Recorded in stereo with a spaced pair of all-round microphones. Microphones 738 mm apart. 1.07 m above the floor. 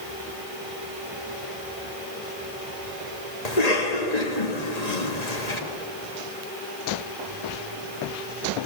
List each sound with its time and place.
3.5 s a cough: 55° left (ahead or behind), 1.7 m